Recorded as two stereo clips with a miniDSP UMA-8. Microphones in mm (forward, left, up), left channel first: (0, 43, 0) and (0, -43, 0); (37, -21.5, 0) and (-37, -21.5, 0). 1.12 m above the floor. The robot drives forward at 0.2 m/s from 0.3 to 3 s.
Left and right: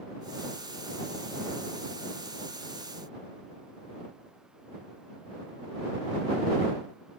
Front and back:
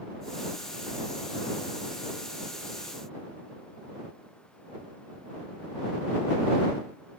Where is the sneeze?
I don't hear a sneeze.